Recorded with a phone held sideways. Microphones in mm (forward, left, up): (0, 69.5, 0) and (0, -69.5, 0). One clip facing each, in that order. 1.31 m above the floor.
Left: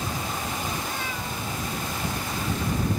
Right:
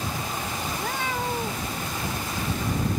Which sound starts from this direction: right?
A cat meowing, at 0.7 s.